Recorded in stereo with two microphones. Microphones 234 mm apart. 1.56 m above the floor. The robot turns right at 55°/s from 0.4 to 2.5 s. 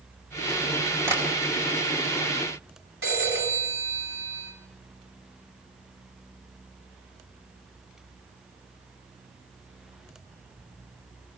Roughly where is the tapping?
Centre.